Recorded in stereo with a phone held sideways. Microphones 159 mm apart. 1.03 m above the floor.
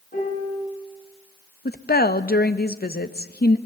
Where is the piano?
65° left (ahead or behind), 7.5 m.